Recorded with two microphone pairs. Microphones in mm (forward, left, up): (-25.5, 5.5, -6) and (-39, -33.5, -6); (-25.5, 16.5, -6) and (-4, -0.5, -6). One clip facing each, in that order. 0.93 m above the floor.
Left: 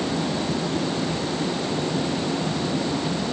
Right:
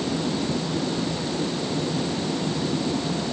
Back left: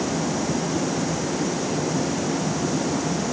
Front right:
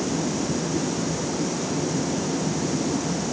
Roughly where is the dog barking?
I don't hear a dog barking.